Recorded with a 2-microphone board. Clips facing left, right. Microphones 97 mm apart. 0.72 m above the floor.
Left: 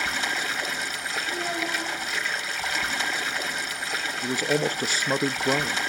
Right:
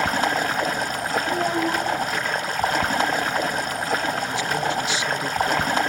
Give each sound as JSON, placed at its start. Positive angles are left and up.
{"t": 0.0, "sound": "running water", "side_deg": -45, "distance_m": 1.1}
{"t": 1.3, "sound": "a child speaking", "side_deg": -45, "distance_m": 4.5}
{"t": 4.2, "sound": "a man speaking", "side_deg": 40, "distance_m": 0.6}